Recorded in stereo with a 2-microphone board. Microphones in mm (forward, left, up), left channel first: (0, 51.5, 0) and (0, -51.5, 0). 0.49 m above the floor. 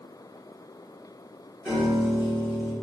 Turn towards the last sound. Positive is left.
turn(degrees=-10)  # may be behind; listen again after turning